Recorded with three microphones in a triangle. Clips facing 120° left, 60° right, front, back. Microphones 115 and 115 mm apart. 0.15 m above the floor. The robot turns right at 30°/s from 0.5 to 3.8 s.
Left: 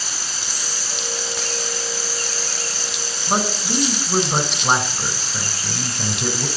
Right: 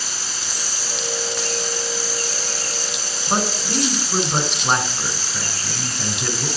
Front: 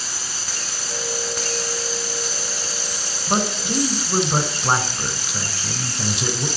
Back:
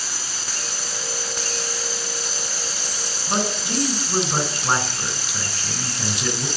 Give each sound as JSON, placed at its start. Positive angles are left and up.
{"t": 3.3, "sound": "a man speaking", "azimuth_deg": 45, "distance_m": 1.5}